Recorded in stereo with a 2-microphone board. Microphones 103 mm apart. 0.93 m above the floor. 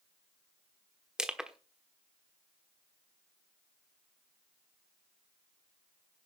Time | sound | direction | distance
1.2 | crushing | 5° right (ahead or behind) | 1.1 m